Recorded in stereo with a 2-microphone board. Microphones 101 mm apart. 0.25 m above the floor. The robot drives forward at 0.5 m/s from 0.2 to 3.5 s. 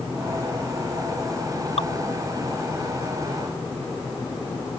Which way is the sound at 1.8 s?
80° left.